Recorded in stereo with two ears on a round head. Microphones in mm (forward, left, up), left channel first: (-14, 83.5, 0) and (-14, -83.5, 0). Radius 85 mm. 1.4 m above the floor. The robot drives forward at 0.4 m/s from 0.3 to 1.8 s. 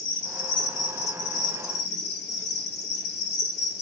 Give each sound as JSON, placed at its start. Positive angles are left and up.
{"t": 0.0, "sound": "an insect", "side_deg": 65, "distance_m": 1.2}